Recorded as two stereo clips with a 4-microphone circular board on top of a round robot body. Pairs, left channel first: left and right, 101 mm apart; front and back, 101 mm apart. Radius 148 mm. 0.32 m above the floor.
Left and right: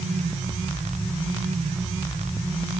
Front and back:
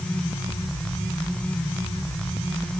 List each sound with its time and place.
Only background noise.